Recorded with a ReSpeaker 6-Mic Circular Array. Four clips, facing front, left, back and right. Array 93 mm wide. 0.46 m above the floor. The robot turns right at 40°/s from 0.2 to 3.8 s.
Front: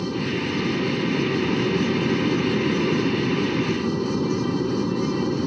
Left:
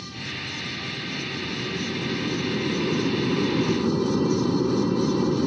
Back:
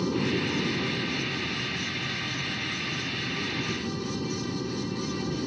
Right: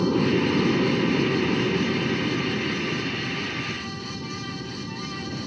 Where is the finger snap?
I don't hear a finger snap.